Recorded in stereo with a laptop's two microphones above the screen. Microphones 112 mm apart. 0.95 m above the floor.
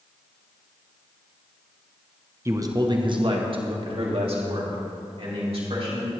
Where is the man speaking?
25° right (ahead or behind), 0.6 m; by 6.1 s 60° right (ahead or behind), 3 m.